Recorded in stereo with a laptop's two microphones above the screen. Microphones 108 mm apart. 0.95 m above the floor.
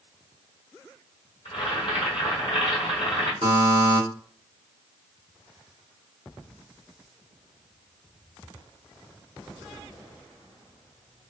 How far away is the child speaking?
No child speaking in this recording.